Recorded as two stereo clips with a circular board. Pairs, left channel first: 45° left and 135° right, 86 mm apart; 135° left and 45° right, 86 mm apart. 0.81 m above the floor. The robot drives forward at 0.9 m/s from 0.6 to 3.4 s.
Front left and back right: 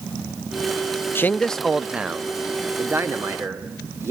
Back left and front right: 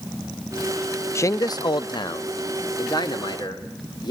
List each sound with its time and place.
1.1 s a man speaking: 95° left, 0.7 m; by 4.1 s 165° left, 2 m